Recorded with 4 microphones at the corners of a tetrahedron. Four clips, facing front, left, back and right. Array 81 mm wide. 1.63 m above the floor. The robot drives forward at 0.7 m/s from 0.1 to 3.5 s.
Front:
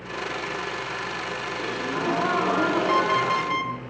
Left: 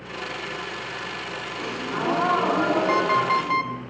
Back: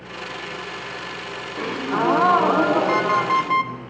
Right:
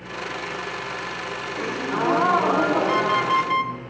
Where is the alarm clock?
125° left, 0.8 m; by 3.7 s 160° left, 0.9 m.